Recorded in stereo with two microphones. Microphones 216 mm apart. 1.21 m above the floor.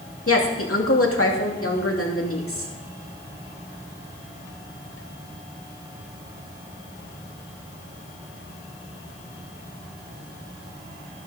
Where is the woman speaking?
70° left (ahead or behind), 2.5 m.